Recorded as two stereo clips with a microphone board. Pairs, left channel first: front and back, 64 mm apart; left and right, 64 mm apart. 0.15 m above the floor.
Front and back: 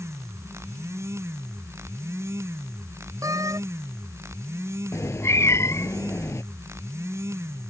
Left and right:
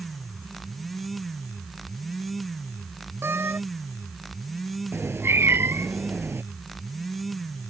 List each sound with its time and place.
3.2 s a door slam: 145° right
4.9 s a cat meowing: 40° right